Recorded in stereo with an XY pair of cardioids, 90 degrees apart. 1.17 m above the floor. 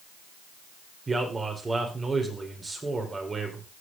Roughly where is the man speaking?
Ahead right.